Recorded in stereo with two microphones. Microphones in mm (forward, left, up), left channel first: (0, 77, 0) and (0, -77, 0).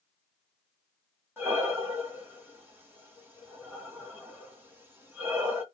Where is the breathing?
15° right (ahead or behind), 1.4 m.